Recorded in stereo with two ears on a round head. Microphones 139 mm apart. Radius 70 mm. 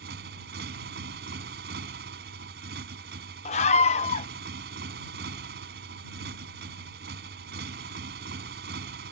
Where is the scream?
45° left (ahead or behind).